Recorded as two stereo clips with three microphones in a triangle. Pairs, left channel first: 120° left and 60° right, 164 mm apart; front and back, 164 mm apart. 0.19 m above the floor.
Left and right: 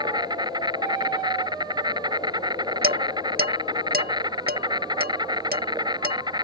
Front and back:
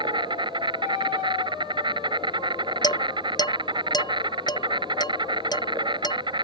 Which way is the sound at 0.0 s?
120° right.